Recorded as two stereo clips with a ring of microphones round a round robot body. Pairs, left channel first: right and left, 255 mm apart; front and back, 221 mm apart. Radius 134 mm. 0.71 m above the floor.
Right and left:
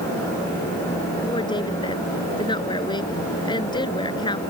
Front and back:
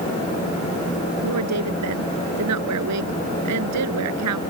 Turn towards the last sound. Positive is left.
turn(degrees=-165)